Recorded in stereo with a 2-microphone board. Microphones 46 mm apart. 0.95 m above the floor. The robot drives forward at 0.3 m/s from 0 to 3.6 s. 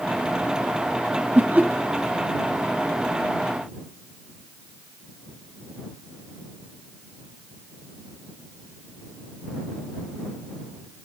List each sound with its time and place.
1.4 s laughter: 45° right (ahead or behind), 1.6 m; by 1.7 s 40° right (ahead or behind), 1.7 m